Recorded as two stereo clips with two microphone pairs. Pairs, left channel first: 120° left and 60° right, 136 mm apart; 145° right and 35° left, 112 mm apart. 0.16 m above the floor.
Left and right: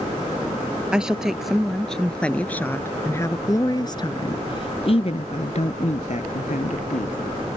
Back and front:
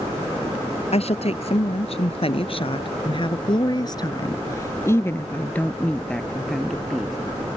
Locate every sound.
0.9 s a woman speaking: 145° right; by 7.2 s 120° left